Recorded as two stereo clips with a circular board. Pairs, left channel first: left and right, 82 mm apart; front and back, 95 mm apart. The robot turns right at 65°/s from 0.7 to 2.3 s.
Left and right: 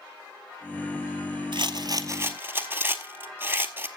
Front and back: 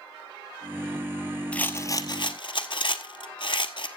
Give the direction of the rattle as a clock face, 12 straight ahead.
3 o'clock.